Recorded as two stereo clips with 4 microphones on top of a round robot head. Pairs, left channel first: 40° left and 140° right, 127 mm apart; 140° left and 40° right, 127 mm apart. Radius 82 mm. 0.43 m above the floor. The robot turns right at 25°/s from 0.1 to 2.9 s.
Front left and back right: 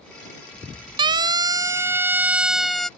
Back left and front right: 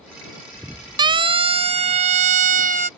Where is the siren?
90° right; by 2.9 s 45° right.